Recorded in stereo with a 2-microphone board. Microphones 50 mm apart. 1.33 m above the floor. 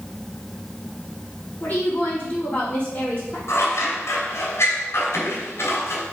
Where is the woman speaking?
35° left (ahead or behind), 4 m.